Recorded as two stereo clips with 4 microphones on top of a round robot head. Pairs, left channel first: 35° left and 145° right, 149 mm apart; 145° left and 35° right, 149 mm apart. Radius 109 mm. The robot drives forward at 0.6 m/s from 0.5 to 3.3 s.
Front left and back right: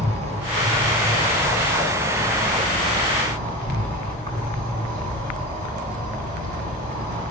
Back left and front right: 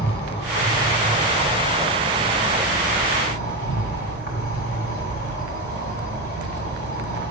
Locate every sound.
0.0 s an insect: 165° left, 3 m; by 7.3 s 170° left, 4.5 m